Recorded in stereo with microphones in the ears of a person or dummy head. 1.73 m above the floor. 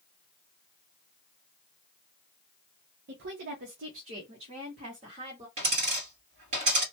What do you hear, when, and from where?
3.1 s a woman speaking: 55° right (ahead or behind), 0.8 m; by 5.5 s 35° right (ahead or behind), 1.6 m
5.6 s a dropped coin: 35° right (ahead or behind), 2.5 m